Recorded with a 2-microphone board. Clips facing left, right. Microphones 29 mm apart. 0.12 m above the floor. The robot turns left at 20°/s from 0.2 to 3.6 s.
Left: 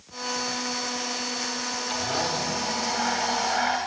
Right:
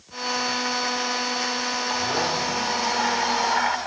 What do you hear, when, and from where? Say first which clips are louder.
1.9 s a blender: right 2 dB; 65° right, 5 m; by 3.8 s 100° right, 5 m